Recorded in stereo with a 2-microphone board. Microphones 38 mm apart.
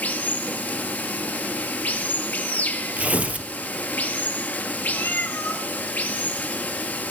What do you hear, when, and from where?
0.0 s running water: 50° left (ahead or behind), 1.4 m
3.0 s tearing paper: 40° right (ahead or behind), 1.5 m
4.9 s a cat meowing: 80° left, 2.5 m